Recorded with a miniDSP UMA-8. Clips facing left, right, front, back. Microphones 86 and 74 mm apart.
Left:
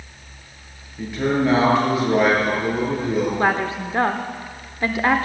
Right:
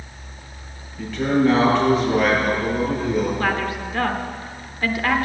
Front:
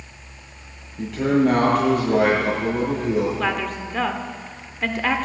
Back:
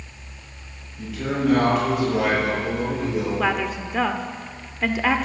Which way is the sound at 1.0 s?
15° left.